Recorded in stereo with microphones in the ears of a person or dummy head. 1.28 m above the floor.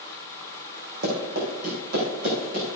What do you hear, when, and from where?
1.0 s running footsteps: 55° right (ahead or behind), 4 m; by 2.7 s 45° right (ahead or behind), 4 m